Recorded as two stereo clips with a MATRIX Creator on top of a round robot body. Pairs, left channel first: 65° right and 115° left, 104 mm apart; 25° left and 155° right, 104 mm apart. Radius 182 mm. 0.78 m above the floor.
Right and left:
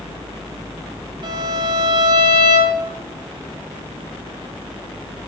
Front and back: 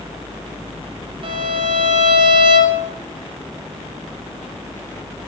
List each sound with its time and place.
1.2 s a violin: 160° left, 1.2 m